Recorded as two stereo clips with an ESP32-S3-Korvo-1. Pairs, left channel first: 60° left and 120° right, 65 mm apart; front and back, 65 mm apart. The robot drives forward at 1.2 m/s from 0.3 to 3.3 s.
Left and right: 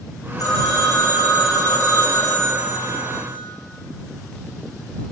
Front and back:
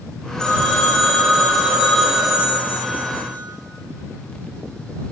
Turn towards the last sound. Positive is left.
turn(degrees=105)